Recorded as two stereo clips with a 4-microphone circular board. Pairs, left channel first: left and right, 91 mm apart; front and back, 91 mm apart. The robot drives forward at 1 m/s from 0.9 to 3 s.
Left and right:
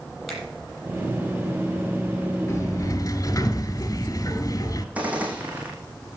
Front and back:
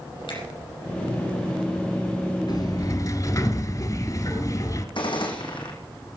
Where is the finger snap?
Straight ahead, 6.5 m.